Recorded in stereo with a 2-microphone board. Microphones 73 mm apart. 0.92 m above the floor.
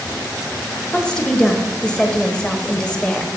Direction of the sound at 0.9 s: 10° left (ahead or behind).